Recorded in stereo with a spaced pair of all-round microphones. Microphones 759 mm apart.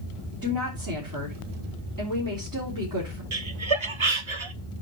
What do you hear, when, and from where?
0.4 s a woman speaking: 25° right (ahead or behind), 4 m
3.3 s laughter: 40° right (ahead or behind), 1.2 m